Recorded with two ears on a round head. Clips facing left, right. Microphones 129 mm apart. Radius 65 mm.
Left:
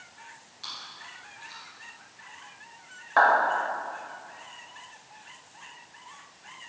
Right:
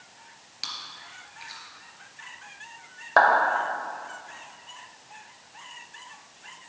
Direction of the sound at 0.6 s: 85° right.